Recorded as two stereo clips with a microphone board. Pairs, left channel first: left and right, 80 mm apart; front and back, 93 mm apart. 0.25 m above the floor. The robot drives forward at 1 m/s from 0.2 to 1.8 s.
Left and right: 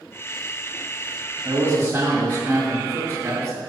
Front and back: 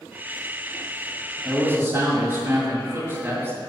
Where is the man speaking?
115° right, 1.8 m; by 3.6 s 130° right, 1.9 m.